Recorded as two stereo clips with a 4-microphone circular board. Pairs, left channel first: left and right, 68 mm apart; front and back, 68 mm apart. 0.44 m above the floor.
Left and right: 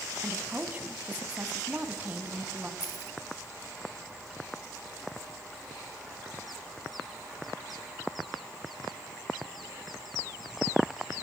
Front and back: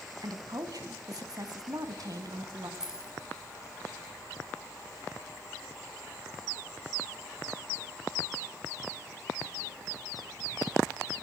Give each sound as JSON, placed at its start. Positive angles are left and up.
{"t": 0.2, "sound": "a woman speaking", "azimuth_deg": -155, "distance_m": 3.0}
{"t": 2.8, "sound": "keys jangling", "azimuth_deg": 100, "distance_m": 3.5}